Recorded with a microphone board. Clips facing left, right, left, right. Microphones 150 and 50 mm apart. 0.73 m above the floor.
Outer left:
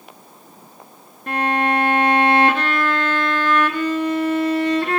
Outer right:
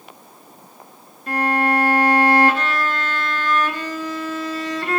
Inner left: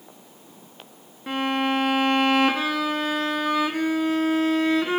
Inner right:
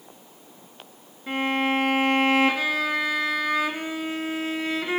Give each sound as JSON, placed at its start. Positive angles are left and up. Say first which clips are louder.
{"t": 1.3, "sound": "a violin", "louder": "even, even", "side_deg": 55, "distance_m": 3.5}